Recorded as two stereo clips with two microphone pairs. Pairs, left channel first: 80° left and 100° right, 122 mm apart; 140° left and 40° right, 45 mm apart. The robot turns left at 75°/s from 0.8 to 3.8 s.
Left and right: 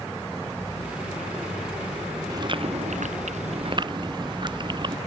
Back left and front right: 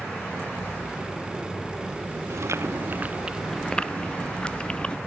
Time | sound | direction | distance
2.3 | chewing | 40° right | ?